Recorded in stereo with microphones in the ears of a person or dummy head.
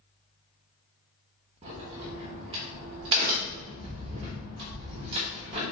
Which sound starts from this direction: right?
A crack, at 1.6 s.